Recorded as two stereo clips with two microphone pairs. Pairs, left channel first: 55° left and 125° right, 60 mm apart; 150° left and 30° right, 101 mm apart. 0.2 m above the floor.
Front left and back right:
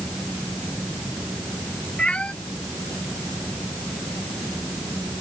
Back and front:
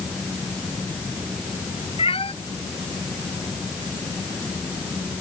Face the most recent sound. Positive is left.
turn(degrees=130)